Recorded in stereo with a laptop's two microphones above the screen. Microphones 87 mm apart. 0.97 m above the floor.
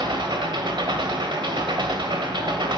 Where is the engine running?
65° right (ahead or behind), 1.8 m.